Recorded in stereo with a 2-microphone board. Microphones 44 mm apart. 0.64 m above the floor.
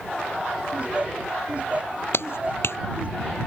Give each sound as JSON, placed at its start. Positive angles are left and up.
{"t": 0.7, "sound": "laughter", "side_deg": -35}
{"t": 2.1, "sound": "a clap", "side_deg": 65}